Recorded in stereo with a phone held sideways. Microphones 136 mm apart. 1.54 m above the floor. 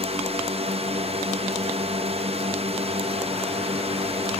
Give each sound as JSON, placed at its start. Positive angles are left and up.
{"t": 0.0, "sound": "a drone", "side_deg": -50}